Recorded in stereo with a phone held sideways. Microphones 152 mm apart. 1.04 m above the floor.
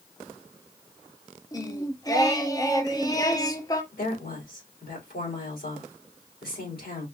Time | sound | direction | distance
1.5 | singing | 25° left (ahead or behind) | 0.7 m
3.9 | a woman speaking | 85° left | 3.5 m